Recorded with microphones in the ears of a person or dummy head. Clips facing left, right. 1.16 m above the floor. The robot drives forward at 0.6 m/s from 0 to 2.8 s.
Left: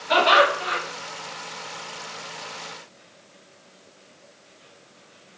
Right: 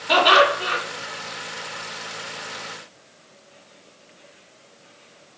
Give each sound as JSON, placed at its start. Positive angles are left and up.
{"t": 0.1, "sound": "laughter", "side_deg": -80, "distance_m": 2.0}